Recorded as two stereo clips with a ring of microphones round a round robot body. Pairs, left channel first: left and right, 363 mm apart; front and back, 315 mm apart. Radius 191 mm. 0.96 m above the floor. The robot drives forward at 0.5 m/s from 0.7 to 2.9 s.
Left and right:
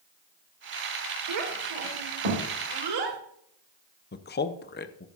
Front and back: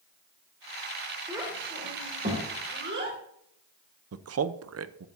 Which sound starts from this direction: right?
A child speaking, at 1.3 s.